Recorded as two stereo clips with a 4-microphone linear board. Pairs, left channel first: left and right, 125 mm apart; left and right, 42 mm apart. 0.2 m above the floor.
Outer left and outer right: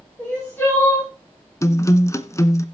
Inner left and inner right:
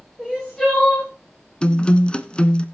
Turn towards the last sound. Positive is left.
turn(degrees=25)  # may be behind; listen again after turning